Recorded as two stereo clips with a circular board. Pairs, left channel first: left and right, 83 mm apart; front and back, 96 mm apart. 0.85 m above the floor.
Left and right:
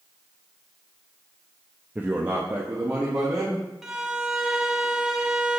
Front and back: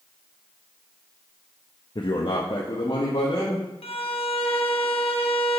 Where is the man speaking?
20° right, 0.5 m; by 3.7 s 30° right, 1.9 m.